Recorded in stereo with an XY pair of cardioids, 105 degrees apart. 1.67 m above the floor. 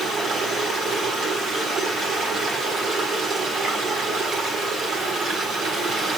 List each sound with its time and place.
0.0 s running water: 55° right, 6.5 m